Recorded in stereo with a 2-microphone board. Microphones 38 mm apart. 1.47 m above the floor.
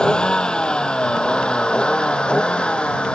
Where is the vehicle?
25° left (ahead or behind); by 3.1 s 30° left (ahead or behind).